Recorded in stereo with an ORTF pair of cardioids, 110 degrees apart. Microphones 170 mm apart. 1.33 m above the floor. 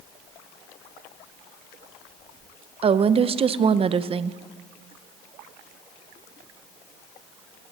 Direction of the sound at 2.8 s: 35° right.